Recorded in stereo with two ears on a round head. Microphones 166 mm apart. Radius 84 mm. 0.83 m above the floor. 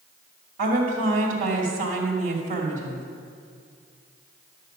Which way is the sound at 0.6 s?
45° right (ahead or behind).